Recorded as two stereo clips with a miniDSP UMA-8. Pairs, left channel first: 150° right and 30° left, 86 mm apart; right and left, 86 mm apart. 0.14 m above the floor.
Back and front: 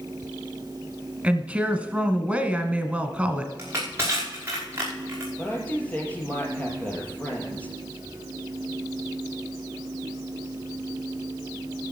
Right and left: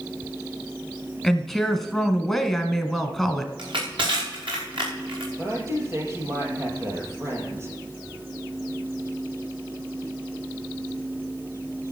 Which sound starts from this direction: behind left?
A woman speaking, at 5.4 s.